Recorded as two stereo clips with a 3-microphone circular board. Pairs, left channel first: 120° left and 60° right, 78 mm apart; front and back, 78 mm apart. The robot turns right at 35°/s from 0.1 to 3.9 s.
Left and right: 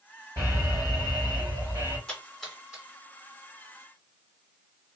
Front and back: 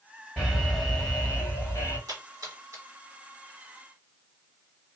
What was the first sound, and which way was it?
An alarm, 100° right.